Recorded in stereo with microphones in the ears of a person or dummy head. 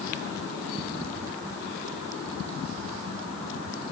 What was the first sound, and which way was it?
Only background noise.